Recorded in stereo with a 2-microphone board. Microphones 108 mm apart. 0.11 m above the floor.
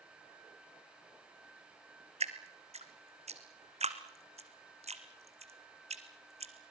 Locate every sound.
2.2 s dripping: 75° right (ahead or behind), 1.5 m